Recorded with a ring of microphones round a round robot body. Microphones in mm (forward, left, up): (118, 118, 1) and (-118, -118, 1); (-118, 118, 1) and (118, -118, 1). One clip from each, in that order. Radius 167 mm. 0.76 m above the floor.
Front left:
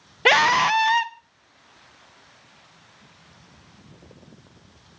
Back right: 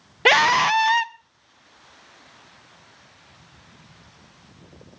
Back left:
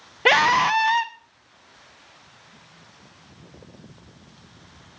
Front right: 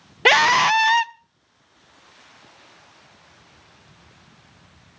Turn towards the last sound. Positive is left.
turn(degrees=-55)